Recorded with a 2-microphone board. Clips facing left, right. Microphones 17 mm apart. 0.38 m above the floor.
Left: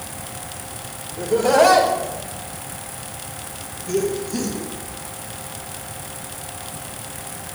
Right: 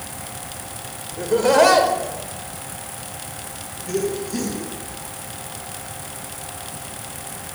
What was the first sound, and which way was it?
Laughter, 30° right (ahead or behind).